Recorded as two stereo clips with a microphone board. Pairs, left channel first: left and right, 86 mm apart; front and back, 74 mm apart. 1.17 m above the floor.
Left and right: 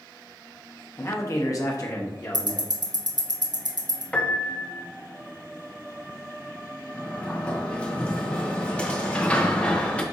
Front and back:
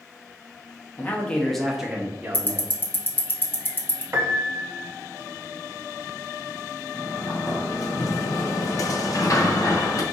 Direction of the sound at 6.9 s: 15° left.